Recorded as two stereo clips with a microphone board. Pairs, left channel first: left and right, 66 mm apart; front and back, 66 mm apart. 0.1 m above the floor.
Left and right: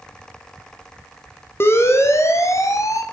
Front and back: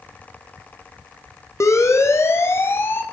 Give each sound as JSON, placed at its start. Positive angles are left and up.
{"t": 1.6, "sound": "a siren", "azimuth_deg": 40, "distance_m": 4.5}